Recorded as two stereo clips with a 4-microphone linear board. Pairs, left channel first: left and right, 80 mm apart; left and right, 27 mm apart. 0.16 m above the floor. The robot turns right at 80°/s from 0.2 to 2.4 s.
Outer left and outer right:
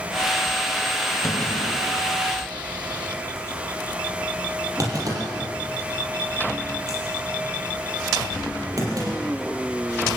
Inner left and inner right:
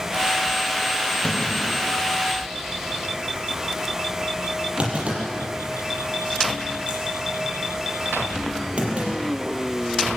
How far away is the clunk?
About 6 m.